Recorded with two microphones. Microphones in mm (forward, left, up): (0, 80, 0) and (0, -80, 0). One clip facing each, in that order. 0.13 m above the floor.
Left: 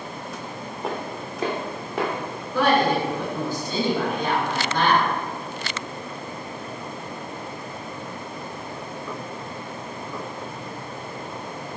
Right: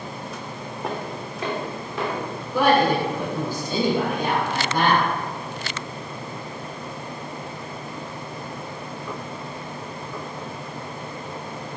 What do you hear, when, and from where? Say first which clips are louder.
0.8 s footsteps: even; centre (ahead or behind), 0.6 m; by 2.1 s 65° left (ahead or behind), 0.9 m
2.5 s a woman speaking: right 1 dB; 10° right (ahead or behind), 1.1 m